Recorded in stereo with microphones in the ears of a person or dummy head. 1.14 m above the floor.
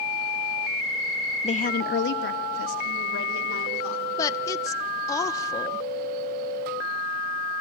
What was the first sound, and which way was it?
A woman speaking, 30° left (ahead or behind).